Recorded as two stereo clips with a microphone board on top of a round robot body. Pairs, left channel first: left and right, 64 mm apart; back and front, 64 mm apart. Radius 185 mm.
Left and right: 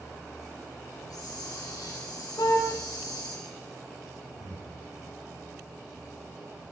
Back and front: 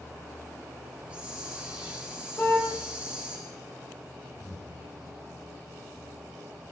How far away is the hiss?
About 7.5 m.